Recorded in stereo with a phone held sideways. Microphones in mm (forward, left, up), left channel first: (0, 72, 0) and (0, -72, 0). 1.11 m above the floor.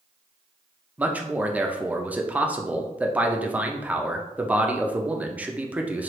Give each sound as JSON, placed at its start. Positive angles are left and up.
{"t": 1.0, "sound": "a man speaking", "side_deg": -10, "distance_m": 0.6}